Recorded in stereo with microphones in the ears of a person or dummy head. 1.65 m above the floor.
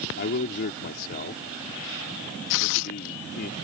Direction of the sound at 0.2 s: 50° left (ahead or behind).